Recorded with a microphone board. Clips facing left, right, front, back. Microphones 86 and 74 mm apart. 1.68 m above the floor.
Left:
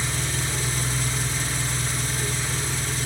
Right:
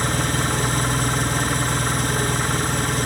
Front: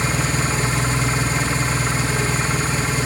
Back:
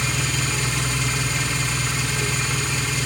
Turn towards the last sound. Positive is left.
turn(degrees=-55)